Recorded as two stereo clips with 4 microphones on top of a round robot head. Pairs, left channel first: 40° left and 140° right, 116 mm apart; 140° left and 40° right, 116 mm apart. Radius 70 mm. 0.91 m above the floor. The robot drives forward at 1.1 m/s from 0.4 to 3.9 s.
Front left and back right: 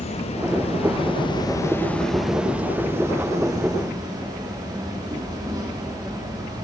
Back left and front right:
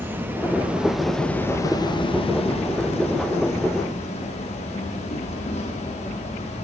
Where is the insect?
30° left, 1.8 m; by 6.6 s 165° left, 3 m.